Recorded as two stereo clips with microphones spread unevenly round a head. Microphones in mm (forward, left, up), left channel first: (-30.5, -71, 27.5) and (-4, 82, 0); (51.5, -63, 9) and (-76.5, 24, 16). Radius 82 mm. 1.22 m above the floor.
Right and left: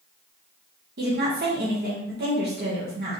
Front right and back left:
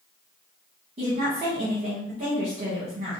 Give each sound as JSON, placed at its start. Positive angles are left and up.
{"t": 1.0, "sound": "a woman speaking", "azimuth_deg": 90, "distance_m": 1.2}